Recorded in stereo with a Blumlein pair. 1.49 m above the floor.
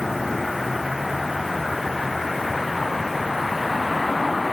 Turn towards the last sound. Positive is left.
turn(degrees=10)